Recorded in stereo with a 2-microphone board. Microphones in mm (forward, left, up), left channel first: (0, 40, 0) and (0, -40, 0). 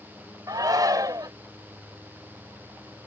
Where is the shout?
50° right (ahead or behind).